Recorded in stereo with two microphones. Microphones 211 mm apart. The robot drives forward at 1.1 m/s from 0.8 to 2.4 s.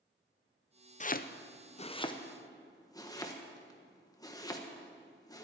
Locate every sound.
1.0 s chopping: 35° left (ahead or behind), 0.6 m; by 5.5 s 15° left (ahead or behind), 1.3 m